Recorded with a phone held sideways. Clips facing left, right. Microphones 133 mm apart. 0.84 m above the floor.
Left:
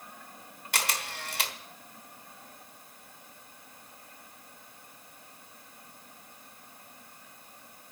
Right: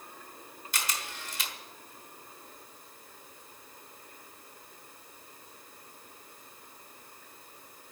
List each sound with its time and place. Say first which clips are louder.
0.7 s a camera shutter: left 4 dB; 60° left (ahead or behind), 1.2 m